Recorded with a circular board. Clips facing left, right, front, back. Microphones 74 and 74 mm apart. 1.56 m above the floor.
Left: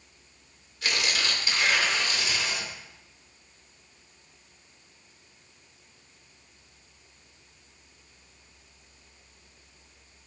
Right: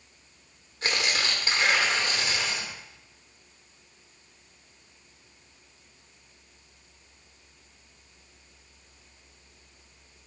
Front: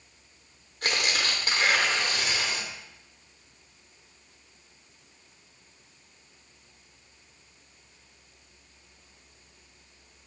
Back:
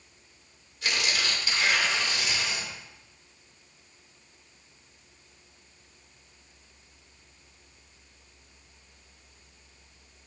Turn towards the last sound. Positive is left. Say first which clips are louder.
# right 1 dB, front 1 dB
turn(degrees=-35)